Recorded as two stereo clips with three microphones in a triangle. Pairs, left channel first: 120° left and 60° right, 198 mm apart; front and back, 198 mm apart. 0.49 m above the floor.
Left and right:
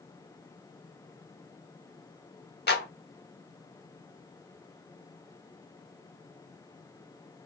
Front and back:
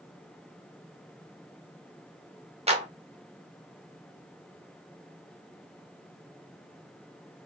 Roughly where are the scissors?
I don't hear scissors.